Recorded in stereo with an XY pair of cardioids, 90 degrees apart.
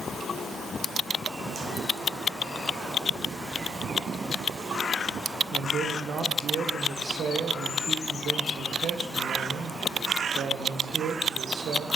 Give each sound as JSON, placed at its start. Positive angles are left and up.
{"t": 5.5, "sound": "a man speaking", "azimuth_deg": -65, "distance_m": 1.5}